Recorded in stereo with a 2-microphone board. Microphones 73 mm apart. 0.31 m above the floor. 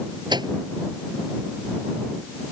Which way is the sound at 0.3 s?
75° right (ahead or behind).